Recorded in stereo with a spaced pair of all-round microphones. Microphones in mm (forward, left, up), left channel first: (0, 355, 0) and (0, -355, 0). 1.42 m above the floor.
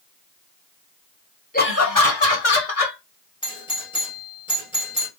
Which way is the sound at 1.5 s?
10° left (ahead or behind).